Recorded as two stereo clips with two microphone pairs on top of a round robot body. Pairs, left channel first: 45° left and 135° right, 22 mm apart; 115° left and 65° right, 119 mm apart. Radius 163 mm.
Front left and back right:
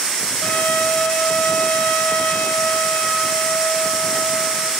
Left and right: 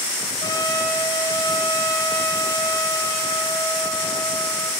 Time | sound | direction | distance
0.4 | a trumpet | 55° left | 3 m